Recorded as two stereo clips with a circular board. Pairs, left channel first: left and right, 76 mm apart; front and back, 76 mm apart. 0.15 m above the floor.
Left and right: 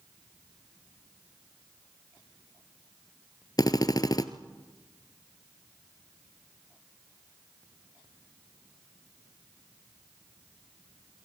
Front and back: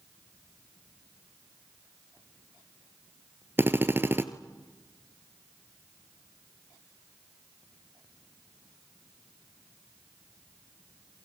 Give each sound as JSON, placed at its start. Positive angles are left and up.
{"t": 3.6, "sound": "a drill", "azimuth_deg": 120, "distance_m": 1.4}